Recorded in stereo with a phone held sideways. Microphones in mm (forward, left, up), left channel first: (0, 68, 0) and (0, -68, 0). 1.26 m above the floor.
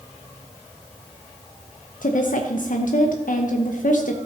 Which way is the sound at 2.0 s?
75° left (ahead or behind).